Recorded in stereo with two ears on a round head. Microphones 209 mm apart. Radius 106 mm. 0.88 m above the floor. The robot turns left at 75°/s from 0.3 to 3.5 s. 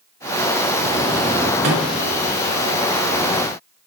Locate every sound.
1.6 s a microwave: 40° right (ahead or behind), 1.6 m; by 1.9 s 60° right (ahead or behind), 1.6 m